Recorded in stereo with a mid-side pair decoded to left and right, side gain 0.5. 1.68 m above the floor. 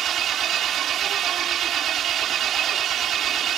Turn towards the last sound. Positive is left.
turn(degrees=-60)